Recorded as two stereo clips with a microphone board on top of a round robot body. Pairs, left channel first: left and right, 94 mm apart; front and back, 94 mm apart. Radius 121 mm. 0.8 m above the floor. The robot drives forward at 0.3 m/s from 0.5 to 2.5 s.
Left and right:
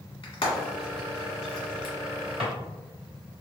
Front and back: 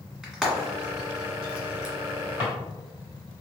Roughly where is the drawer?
Right.